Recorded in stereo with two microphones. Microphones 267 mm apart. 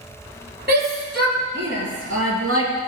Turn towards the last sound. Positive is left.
turn(degrees=-60)  # may be behind; listen again after turning